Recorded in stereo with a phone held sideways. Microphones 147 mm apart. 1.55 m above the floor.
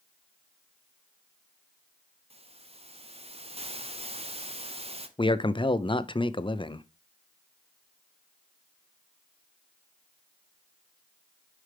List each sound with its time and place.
2.3 s a hiss: 45° right (ahead or behind), 0.8 m
5.2 s a man speaking: 35° left (ahead or behind), 0.5 m